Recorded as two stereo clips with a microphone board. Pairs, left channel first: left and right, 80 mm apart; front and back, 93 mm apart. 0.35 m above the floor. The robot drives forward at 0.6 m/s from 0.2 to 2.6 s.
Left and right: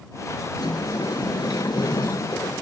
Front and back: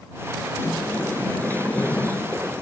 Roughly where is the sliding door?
Ahead left.